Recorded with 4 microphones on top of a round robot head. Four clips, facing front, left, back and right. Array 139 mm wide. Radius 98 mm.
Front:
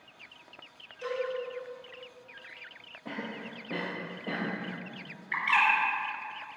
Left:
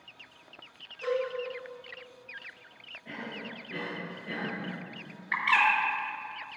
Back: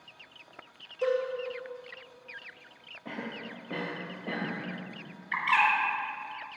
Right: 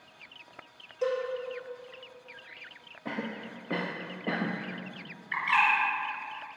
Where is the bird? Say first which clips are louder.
Even, back 1 dB; 100° left, 4 m.